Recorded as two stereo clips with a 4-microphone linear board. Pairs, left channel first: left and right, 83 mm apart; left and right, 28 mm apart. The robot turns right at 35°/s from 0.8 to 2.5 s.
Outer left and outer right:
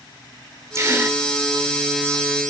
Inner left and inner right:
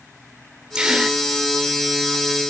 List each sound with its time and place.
0.8 s a gasp: 35° right (ahead or behind), 2 m; by 1.2 s 25° right (ahead or behind), 2 m